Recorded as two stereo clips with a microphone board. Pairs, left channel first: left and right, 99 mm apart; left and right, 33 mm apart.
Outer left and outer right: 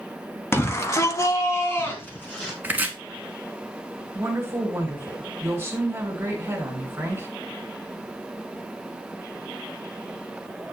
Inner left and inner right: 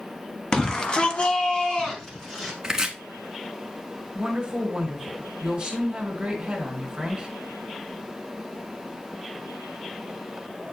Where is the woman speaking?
25° right (ahead or behind), 2.5 m.